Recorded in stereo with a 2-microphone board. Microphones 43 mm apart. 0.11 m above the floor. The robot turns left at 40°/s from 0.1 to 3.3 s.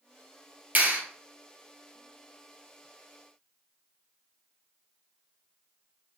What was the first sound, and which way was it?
A clap, 40° right (ahead or behind).